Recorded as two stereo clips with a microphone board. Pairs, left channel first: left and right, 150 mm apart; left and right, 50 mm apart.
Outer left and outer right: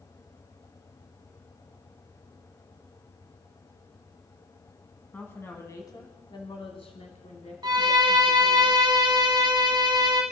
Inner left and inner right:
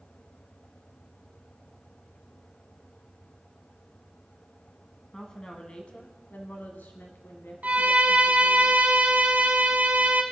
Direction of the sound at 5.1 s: 15° left (ahead or behind).